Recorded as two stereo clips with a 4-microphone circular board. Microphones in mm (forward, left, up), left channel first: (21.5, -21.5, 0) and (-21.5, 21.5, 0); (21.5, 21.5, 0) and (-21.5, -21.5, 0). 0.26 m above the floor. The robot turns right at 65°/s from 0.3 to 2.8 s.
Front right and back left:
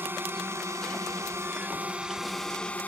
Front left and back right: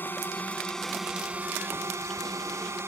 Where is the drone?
95° left; by 2.9 s 105° right.